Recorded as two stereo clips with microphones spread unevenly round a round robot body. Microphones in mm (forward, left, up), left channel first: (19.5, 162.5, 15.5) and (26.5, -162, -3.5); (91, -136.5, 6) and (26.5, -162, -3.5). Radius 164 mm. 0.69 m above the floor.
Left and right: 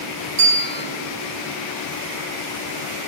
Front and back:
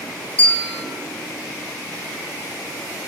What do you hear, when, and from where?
0.4 s a bell: 45° right, 9.5 m